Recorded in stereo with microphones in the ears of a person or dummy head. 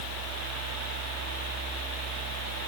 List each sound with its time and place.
Only background noise.